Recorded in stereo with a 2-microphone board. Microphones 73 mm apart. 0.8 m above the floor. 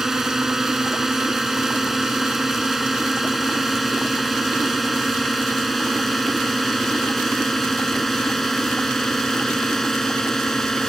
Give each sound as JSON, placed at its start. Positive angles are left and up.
{"t": 0.0, "sound": "a drone", "side_deg": -5}